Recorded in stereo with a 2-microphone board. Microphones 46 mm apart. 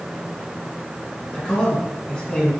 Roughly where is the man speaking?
Centre.